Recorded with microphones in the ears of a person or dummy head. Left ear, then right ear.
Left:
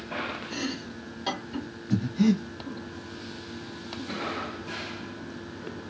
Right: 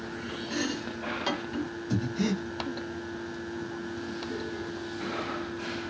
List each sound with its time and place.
0.5 s chopping: 20° right (ahead or behind), 1.8 m
1.9 s breathing: 20° right (ahead or behind), 1.5 m